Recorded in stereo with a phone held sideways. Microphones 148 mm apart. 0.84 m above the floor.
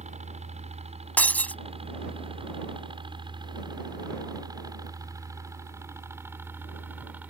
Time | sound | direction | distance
0.0 | a helicopter | 50° right (ahead or behind) | ?
1.2 | breaking glass | 10° left (ahead or behind) | ?